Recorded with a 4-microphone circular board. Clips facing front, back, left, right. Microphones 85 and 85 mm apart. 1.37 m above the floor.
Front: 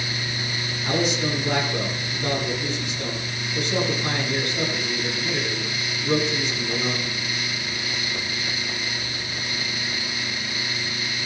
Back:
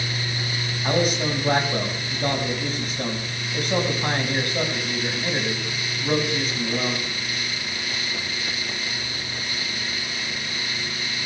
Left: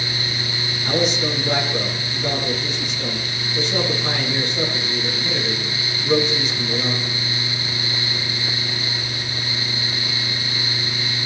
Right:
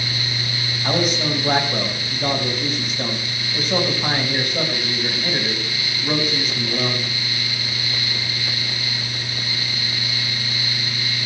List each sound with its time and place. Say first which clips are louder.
0.8 s a man speaking: back 2 dB, even; 135° right, 5.5 m